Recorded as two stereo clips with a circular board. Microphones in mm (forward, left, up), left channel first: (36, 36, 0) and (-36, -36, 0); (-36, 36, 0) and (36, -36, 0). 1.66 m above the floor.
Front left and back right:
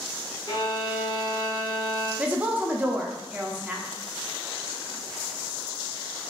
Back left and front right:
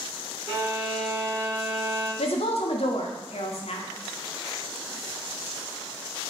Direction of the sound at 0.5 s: 5° right.